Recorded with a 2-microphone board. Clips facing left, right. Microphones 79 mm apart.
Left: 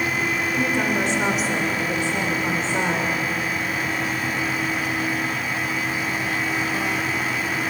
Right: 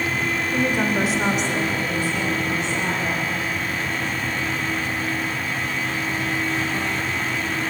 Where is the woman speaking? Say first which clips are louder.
Right 2 dB; 20° right (ahead or behind), 3 m; by 3.1 s 55° left (ahead or behind), 3 m.